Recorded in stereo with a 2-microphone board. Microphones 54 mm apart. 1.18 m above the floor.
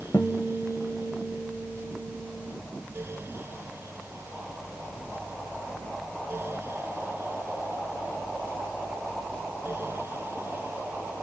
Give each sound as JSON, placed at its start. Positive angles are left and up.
{"t": 0.1, "sound": "a guitar", "side_deg": 45, "distance_m": 0.7}